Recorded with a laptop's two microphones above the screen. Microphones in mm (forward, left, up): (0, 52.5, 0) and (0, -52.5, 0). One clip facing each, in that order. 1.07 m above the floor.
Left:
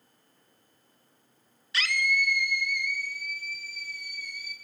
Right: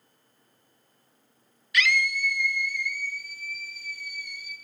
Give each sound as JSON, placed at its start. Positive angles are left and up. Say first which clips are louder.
{"t": 1.7, "sound": "a scream", "louder": "right 3 dB", "side_deg": 30, "distance_m": 0.5}